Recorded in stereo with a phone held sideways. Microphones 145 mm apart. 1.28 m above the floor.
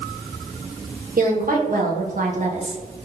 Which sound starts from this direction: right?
A woman speaking, at 1.2 s.